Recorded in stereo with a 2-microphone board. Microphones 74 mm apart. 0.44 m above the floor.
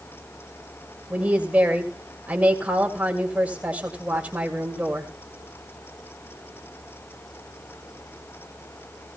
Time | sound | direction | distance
1.1 | a woman speaking | 20° right (ahead or behind) | 2 m